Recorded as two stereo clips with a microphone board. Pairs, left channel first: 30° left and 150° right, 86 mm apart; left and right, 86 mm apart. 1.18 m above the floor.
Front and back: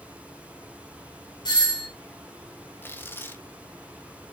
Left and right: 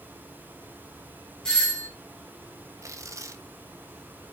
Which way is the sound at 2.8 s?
35° right.